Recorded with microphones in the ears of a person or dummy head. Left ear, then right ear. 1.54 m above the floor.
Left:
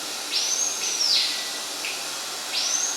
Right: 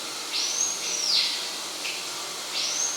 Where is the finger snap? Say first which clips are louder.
Left 1 dB; 15° left (ahead or behind), 1.0 m.